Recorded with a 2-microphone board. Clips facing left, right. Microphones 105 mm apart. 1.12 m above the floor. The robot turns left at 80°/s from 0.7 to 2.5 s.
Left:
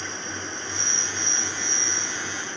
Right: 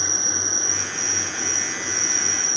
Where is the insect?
40° left; by 2.6 s 105° right.